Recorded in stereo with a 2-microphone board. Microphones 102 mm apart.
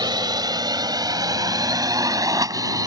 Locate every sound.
0.0 s a drone: 45° right (ahead or behind); by 2.9 s 35° right (ahead or behind)